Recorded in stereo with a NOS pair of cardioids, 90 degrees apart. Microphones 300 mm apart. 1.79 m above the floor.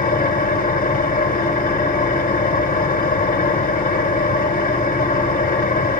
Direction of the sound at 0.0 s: 30° left.